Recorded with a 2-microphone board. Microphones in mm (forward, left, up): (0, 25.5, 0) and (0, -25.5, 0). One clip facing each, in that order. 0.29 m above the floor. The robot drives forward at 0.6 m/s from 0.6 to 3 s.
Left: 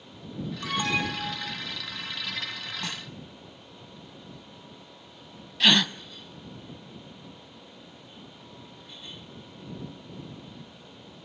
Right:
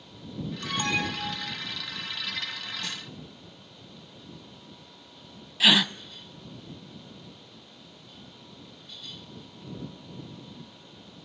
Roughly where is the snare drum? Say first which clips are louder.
Left 1 dB; left.